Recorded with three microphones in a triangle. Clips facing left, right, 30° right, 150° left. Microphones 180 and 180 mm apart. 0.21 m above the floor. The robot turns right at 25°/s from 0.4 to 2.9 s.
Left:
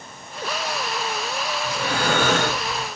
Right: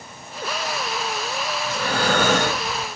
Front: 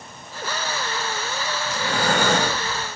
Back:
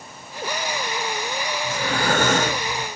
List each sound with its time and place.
1.6 s breathing: 160° left, 3 m; by 2.9 s 165° right, 3 m